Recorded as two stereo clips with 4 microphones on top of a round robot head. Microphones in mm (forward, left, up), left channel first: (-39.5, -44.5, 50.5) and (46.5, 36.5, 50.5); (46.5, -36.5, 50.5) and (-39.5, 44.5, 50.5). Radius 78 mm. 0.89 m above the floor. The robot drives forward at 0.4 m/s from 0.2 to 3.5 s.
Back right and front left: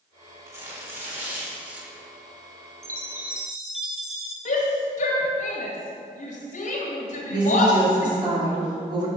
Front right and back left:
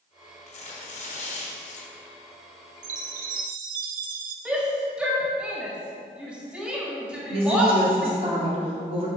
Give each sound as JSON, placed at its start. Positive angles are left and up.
{"t": 0.5, "sound": "tearing paper", "azimuth_deg": -25, "distance_m": 1.9}
{"t": 2.8, "sound": "a chime", "azimuth_deg": 110, "distance_m": 0.6}
{"t": 4.5, "sound": "a shout", "azimuth_deg": -140, "distance_m": 1.6}
{"t": 7.3, "sound": "a woman speaking", "azimuth_deg": 95, "distance_m": 2.5}